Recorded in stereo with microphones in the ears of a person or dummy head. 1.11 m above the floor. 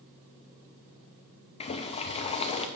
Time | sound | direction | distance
1.6 | boiling | 35° left (ahead or behind) | 0.5 m